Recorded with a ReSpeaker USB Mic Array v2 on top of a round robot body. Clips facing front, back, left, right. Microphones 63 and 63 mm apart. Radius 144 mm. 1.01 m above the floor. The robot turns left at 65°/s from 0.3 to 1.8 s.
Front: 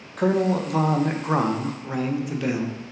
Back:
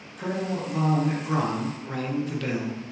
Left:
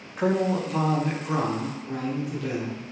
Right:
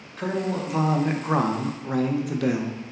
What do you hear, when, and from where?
0.2 s a man speaking: 20° left, 0.6 m; by 2.8 s 75° right, 0.6 m